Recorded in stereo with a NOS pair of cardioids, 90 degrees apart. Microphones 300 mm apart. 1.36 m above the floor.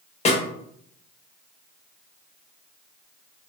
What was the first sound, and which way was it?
A snare drum, 20° left.